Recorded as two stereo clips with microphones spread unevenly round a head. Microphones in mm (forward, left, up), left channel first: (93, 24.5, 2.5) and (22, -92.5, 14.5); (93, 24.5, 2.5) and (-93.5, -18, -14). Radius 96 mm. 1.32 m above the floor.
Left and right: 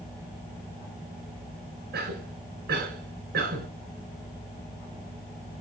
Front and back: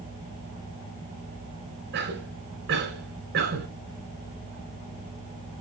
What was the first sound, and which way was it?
A cough, 130° right.